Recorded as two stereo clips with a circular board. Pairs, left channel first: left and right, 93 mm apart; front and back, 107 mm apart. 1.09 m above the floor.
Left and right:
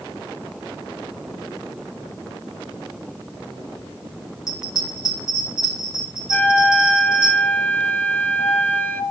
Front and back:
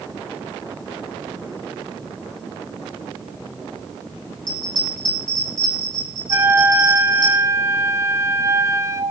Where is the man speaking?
No man speaking in this recording.